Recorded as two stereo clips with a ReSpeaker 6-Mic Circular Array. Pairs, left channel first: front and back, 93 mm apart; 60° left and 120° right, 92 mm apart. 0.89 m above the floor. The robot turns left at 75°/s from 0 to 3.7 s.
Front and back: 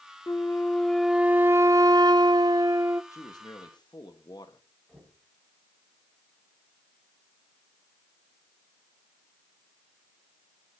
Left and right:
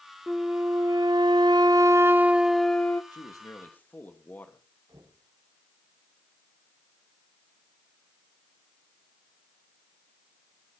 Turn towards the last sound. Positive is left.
turn(degrees=-85)